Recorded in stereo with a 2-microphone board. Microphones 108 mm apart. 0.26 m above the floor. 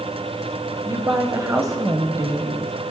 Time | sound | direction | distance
0.8 | a woman speaking | 35° right (ahead or behind) | 1.3 m